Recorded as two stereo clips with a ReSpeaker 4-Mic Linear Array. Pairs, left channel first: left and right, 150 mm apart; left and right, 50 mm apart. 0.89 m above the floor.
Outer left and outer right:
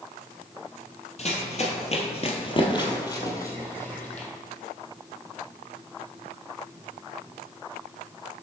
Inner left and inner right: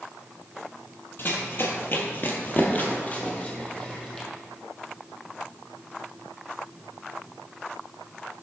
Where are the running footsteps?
45° left (ahead or behind), 1.3 m; by 4.3 s 10° left (ahead or behind), 1.8 m.